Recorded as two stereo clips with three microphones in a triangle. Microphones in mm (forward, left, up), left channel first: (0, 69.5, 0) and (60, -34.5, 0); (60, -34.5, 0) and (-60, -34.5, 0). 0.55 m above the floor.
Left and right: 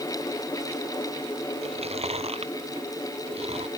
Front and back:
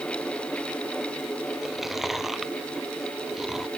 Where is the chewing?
90° right.